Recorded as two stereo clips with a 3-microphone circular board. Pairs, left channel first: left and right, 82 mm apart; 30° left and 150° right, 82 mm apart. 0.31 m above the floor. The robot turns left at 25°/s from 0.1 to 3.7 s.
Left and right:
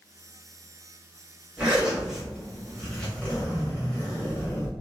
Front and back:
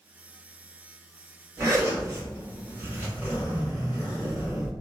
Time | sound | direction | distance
1.6 | a zipper | 155° right | 1.4 m